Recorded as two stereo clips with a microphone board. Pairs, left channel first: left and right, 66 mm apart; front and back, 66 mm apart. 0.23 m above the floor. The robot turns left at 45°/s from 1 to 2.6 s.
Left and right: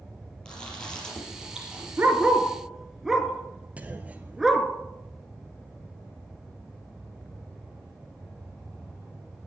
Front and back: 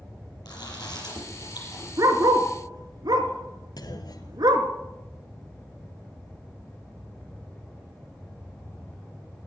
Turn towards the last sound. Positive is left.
turn(degrees=-20)